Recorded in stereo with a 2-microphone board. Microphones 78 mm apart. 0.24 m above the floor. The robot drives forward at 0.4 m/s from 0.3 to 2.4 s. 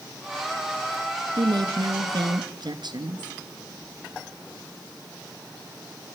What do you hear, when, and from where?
1.4 s a woman speaking: 65° right (ahead or behind), 3 m